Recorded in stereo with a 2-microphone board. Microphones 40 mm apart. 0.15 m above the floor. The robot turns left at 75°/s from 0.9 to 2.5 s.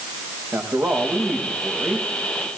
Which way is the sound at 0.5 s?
70° right.